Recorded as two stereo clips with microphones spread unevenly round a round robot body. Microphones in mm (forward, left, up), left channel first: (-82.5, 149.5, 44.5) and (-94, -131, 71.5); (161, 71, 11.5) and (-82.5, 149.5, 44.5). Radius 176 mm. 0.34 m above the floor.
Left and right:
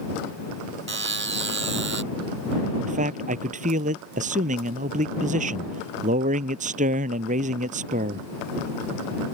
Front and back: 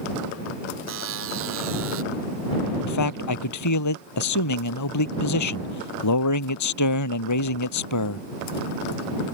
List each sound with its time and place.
0.9 s a buzzer: 140° right
2.8 s a man speaking: 25° right